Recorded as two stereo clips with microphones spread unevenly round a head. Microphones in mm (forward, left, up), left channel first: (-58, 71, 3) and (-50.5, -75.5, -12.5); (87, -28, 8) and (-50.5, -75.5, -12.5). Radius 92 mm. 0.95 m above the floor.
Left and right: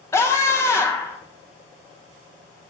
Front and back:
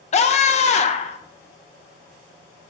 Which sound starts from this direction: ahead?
A scream, at 0.1 s.